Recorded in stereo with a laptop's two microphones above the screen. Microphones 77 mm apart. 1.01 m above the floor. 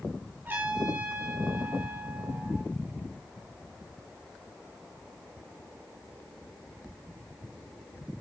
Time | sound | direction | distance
0.5 | a trumpet | 25° right (ahead or behind) | 8 m